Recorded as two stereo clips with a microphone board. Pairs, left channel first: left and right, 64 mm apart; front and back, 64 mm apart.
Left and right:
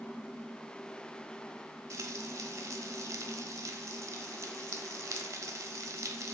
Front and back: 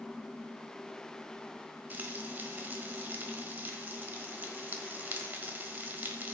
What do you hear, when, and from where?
1.9 s frying: 120° right, 1.3 m